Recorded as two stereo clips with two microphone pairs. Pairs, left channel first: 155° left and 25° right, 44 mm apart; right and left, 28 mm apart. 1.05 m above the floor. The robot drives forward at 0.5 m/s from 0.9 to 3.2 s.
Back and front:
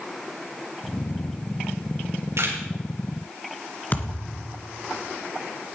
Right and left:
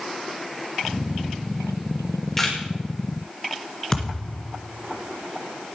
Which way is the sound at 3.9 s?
155° right.